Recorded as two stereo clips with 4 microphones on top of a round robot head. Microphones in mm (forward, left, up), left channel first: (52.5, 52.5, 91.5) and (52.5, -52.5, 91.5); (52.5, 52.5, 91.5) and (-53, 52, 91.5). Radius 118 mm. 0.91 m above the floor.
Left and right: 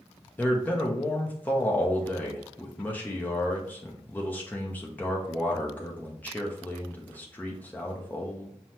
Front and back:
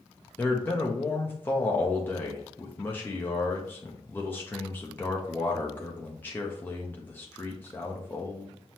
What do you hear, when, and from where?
0.4 s a man speaking: 40° left, 0.8 m